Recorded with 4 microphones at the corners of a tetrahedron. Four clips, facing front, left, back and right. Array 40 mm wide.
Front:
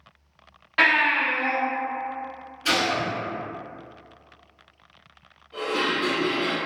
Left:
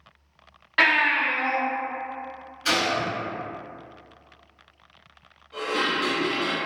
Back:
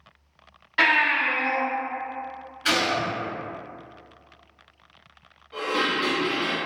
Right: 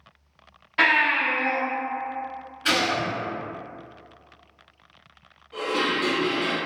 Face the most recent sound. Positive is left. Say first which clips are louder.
# right 1 dB, even
turn(degrees=-175)